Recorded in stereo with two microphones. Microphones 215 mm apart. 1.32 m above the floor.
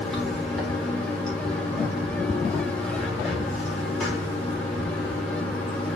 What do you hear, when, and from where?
0.0 s running water: 5° left (ahead or behind), 3.5 m